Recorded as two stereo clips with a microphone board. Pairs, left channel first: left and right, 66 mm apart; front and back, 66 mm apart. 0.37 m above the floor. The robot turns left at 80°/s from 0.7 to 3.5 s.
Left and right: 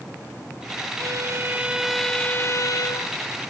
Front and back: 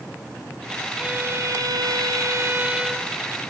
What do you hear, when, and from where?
1.0 s a violin: 105° right, 1.0 m; by 3.1 s 85° left, 1.0 m